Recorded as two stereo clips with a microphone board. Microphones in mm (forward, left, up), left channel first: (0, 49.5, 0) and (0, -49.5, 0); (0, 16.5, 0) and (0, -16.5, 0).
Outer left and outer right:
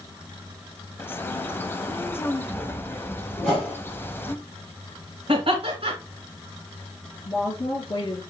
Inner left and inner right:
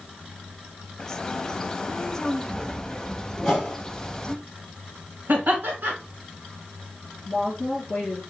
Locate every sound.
1.0 s a bird: 20° left (ahead or behind), 0.5 m
3.4 s a whoosh: 10° left (ahead or behind), 4 m
5.3 s laughter: 60° right (ahead or behind), 2 m
7.2 s a woman speaking: 35° left (ahead or behind), 3.5 m